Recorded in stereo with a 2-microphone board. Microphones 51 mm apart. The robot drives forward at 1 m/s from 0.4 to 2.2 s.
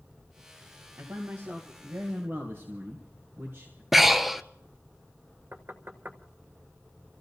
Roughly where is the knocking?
Right.